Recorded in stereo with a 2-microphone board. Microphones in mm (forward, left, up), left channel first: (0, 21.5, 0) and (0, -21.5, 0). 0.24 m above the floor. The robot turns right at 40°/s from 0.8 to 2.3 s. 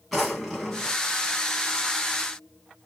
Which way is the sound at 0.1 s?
5° left (ahead or behind).